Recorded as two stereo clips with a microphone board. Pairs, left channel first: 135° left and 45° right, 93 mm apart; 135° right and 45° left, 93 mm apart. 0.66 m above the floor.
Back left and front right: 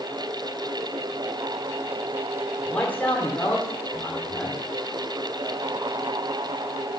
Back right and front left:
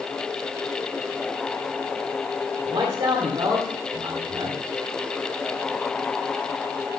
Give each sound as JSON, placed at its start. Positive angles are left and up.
{"t": 2.6, "sound": "a man speaking", "azimuth_deg": 65, "distance_m": 2.0}